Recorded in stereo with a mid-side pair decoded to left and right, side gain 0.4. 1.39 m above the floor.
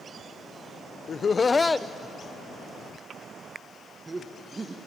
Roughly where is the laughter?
Ahead left.